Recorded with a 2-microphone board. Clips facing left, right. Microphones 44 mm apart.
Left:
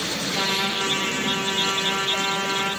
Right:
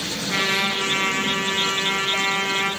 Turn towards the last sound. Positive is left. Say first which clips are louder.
# right 4 dB
turn(degrees=-60)  # may be behind; listen again after turning